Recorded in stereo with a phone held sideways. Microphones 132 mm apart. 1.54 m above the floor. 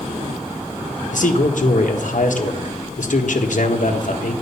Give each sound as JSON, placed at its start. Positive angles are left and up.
{"t": 1.1, "sound": "a man speaking", "side_deg": 75, "distance_m": 1.6}